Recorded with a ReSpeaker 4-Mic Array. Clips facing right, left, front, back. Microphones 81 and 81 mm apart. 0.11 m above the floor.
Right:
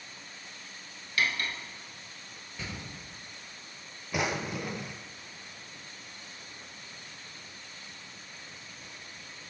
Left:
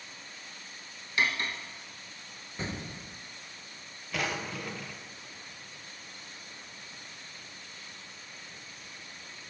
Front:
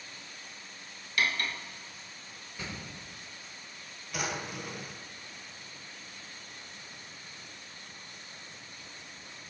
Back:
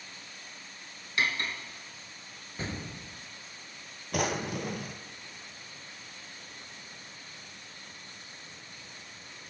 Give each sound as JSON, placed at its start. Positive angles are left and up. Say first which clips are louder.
{"t": 1.2, "sound": "cutlery clinking", "louder": "left 1 dB, even", "azimuth_deg": 135, "distance_m": 0.8}
{"t": 2.6, "sound": "an explosion", "louder": "left 4 dB, back 4 dB", "azimuth_deg": 135, "distance_m": 0.5}
{"t": 4.1, "sound": "a drawer", "louder": "right 2 dB, back 5 dB", "azimuth_deg": -160, "distance_m": 0.6}